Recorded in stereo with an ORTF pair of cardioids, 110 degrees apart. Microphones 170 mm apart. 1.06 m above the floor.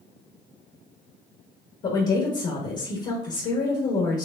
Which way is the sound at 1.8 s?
50° left.